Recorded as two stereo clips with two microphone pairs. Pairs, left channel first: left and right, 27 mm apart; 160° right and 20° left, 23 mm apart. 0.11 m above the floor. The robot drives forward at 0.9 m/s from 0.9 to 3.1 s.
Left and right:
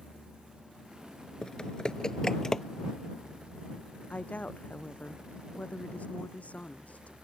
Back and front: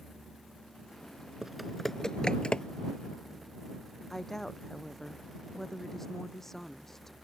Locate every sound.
1.4 s typing on a keyboard: 75° left; by 2.6 s 165° left
4.1 s a woman speaking: 125° left